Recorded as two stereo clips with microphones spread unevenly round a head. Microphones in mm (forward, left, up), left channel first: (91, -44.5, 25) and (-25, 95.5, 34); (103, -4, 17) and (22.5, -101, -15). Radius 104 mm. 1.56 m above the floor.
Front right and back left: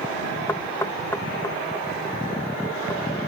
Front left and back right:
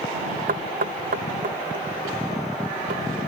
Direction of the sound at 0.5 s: 130° right.